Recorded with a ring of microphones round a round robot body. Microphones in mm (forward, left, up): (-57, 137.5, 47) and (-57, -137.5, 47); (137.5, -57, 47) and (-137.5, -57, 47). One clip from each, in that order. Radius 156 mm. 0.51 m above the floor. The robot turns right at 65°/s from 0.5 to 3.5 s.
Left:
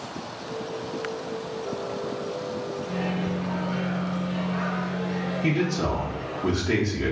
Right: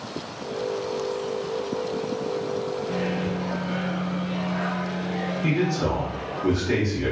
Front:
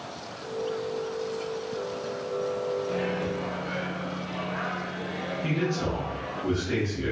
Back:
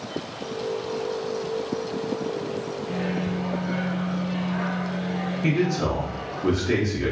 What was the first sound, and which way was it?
A microwave, 70° right.